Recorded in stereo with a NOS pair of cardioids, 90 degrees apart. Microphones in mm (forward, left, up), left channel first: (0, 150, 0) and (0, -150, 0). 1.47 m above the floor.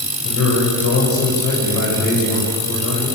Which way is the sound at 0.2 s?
65° left.